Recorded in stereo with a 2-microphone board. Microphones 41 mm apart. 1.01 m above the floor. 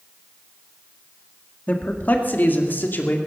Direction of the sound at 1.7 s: 40° left (ahead or behind).